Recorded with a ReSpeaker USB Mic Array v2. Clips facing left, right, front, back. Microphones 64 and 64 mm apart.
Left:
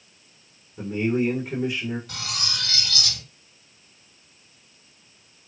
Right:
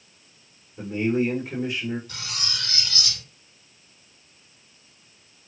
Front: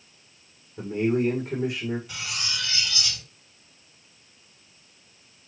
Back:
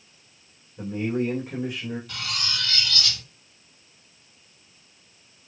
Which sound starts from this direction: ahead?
A man speaking, at 0.8 s.